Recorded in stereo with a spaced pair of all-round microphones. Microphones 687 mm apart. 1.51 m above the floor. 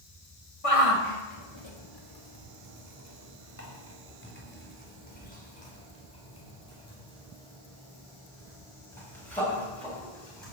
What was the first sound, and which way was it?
A shout, 55° left (ahead or behind).